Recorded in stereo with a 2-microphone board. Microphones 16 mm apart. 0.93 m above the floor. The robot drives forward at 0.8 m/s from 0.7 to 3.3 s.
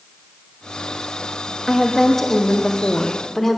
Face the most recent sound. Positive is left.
turn(degrees=30)  # may be behind; listen again after turning